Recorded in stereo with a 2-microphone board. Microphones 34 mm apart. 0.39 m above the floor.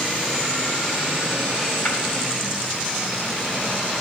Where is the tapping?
50° left (ahead or behind), 3 m.